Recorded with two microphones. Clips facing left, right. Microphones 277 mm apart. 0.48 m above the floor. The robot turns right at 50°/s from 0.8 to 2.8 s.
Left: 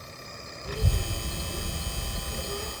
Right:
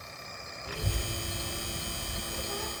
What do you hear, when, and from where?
0.7 s a child speaking: 60° left, 0.7 m; by 2.7 s 155° left, 0.7 m